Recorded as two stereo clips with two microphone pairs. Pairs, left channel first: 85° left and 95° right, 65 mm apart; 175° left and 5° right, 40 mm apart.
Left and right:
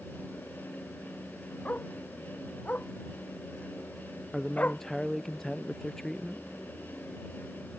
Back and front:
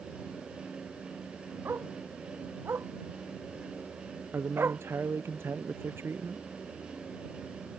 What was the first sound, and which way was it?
A dog barking, 15° left.